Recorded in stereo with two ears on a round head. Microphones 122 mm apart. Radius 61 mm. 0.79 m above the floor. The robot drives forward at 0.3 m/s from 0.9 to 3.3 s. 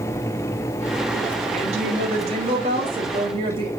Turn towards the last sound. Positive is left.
turn(degrees=-40)  # may be behind; listen again after turning